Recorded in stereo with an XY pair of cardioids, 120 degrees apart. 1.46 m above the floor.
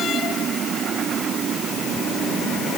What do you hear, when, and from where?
Only background noise.